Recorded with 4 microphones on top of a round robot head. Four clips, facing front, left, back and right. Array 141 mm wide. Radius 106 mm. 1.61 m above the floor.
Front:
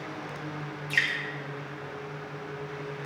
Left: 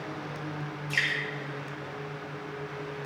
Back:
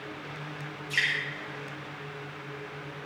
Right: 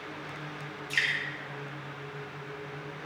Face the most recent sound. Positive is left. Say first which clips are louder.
# even, front 1 dB
turn(degrees=-15)